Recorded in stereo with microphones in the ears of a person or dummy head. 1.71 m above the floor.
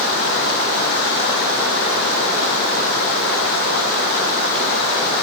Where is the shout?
No shout in this recording.